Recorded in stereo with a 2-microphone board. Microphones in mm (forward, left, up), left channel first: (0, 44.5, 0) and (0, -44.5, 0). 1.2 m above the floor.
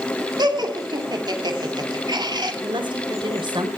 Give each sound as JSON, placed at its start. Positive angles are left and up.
{"t": 0.4, "sound": "laughter", "side_deg": -55, "distance_m": 2.5}
{"t": 2.6, "sound": "a woman speaking", "side_deg": -65, "distance_m": 4.0}